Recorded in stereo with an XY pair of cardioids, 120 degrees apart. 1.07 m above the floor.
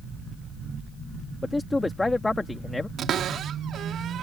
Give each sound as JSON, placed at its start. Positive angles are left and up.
{"t": 1.4, "sound": "a man speaking", "azimuth_deg": 10}
{"t": 3.0, "sound": "a cupboard door", "azimuth_deg": -60}